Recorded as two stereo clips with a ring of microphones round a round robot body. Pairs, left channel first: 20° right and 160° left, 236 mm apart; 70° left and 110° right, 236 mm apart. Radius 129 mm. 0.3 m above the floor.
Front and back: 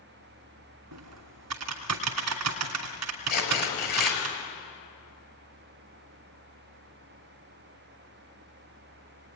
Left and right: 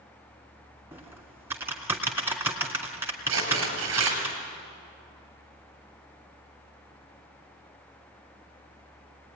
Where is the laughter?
No laughter in this recording.